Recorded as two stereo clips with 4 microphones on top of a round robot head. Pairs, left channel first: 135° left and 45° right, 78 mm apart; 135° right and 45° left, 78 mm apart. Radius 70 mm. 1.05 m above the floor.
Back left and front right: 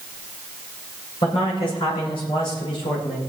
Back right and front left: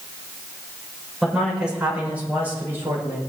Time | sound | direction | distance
1.2 | a man speaking | 130° left | 6 m